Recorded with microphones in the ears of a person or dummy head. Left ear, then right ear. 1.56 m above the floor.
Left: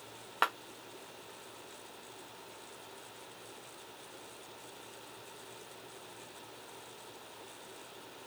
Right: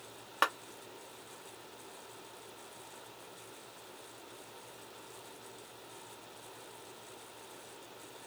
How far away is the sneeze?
No sneeze in this recording.